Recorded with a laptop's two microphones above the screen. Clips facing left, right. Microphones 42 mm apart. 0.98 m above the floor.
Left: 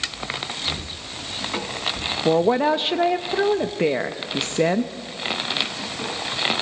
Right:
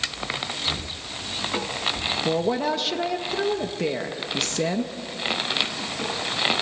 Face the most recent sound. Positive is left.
turn(degrees=30)  # may be behind; listen again after turning